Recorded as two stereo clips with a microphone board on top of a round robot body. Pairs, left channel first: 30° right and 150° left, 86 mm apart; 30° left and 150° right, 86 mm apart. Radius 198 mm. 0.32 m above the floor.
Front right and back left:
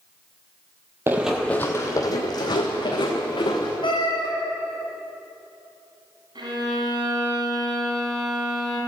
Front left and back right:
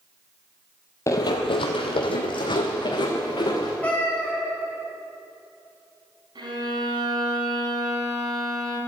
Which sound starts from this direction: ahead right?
A cat meowing, at 3.8 s.